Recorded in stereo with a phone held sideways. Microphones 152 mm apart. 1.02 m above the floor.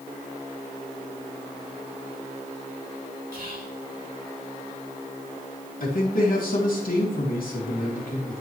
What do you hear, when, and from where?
3.3 s whispering: 80° right, 3.5 m
5.8 s a man speaking: 75° left (ahead or behind), 2.5 m